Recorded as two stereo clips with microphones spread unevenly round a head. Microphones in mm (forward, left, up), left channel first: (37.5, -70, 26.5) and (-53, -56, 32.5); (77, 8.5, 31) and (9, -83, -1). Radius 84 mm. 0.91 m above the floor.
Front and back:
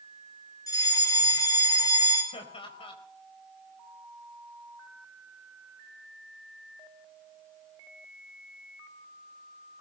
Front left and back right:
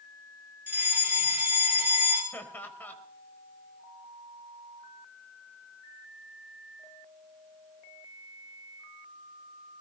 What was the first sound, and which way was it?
A fire alarm, 55° right.